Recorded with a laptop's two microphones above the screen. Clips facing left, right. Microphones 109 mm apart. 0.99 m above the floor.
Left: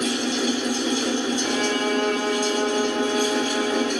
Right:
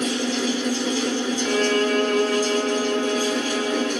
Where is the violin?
40° left (ahead or behind), 1.1 m.